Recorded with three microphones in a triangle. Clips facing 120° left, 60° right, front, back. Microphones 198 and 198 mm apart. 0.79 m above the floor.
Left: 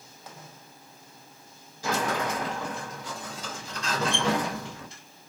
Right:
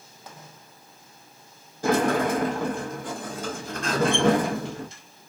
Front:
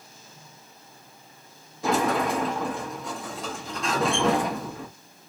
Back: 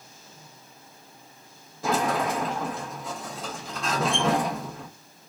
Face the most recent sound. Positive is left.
turn(degrees=-90)